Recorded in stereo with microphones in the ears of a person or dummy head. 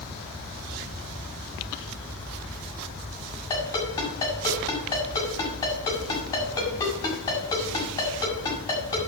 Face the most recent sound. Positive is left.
turn(degrees=20)  # may be behind; listen again after turning